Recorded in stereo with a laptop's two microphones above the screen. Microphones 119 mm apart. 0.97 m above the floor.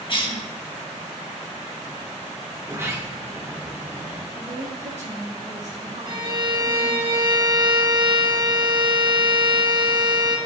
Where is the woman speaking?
60° right (ahead or behind), 1.8 m.